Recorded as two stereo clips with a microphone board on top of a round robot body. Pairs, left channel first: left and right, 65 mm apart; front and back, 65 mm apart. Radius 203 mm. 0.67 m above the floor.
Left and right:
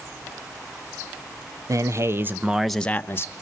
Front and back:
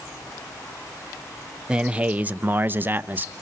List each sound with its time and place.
1.7 s a man speaking: 105° right, 1.8 m; by 3.3 s 125° left, 1.5 m